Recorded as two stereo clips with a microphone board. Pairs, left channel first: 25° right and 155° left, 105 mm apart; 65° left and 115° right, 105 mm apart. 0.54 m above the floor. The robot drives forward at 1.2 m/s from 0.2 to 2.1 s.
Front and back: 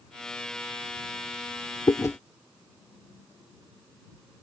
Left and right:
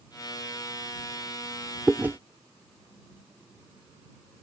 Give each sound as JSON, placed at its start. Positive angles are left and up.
{"t": 1.9, "sound": "chewing", "azimuth_deg": -35}